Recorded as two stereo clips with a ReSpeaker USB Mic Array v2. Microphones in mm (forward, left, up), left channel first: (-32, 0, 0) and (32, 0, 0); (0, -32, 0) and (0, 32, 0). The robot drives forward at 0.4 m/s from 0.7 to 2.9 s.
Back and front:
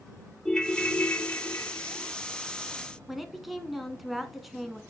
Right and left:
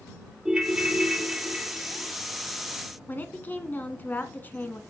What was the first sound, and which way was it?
A ringtone, 140° left.